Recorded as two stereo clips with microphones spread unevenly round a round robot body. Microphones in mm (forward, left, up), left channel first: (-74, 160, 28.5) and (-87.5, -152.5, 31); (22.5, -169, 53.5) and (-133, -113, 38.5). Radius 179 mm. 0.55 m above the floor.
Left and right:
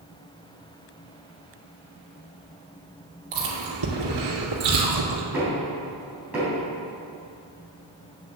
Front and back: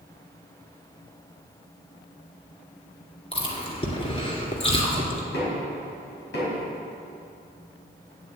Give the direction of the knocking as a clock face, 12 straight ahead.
12 o'clock.